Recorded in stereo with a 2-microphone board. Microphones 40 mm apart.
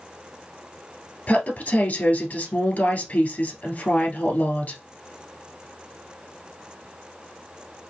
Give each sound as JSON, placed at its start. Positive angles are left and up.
{"t": 1.3, "sound": "a woman speaking", "side_deg": 40, "distance_m": 1.6}